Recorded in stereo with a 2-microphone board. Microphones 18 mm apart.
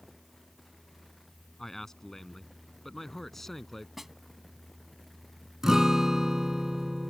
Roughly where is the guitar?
Right.